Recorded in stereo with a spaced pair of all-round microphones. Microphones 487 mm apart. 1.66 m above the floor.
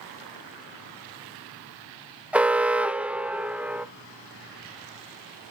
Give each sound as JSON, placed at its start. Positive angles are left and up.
{"t": 2.3, "sound": "an alarm", "side_deg": 0, "distance_m": 1.4}